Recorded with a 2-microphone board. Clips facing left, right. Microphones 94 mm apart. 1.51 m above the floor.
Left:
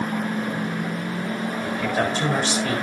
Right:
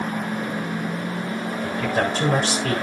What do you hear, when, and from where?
1.6 s a man speaking: 50° right (ahead or behind), 7.5 m